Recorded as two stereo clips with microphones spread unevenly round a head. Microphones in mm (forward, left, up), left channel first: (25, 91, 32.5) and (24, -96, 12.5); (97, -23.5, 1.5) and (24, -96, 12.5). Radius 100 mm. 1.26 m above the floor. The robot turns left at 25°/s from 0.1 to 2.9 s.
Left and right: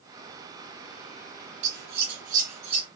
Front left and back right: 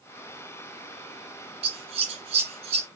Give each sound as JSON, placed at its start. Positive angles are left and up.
{"t": 1.6, "sound": "scissors", "azimuth_deg": -125, "distance_m": 2.5}